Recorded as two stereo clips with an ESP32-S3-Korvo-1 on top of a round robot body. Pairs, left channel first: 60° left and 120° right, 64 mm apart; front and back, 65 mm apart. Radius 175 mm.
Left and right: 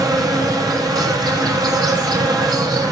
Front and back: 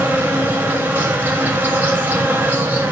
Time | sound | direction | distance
0.0 | an insect | 115° right | 5 m